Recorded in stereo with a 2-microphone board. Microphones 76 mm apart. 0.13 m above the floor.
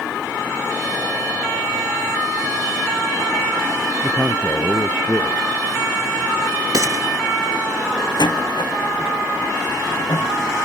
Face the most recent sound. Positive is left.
turn(degrees=75)  # may be behind; listen again after turning